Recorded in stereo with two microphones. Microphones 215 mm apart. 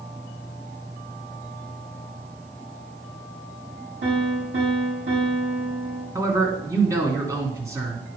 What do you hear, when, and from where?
4.0 s a piano: 60° right (ahead or behind), 4 m
6.2 s a man speaking: 15° right (ahead or behind), 2 m